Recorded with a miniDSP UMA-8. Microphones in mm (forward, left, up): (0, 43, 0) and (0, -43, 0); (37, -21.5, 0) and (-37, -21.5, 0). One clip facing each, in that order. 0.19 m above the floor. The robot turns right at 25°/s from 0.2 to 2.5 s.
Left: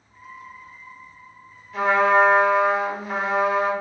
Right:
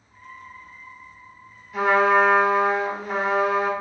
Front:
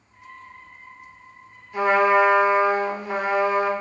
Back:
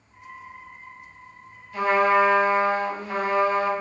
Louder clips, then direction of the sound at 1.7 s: Even, front 2 dB; 5° right.